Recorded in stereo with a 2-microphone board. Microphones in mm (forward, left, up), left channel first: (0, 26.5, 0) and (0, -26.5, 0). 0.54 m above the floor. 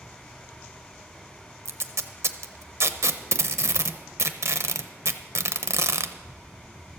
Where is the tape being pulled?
65° right (ahead or behind), 0.7 m.